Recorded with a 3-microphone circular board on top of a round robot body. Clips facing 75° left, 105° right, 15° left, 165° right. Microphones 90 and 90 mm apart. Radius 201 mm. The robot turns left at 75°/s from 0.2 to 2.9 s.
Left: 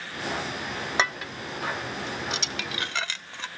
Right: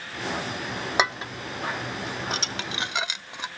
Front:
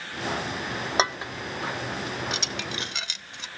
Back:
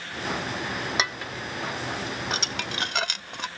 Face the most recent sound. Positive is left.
turn(degrees=-175)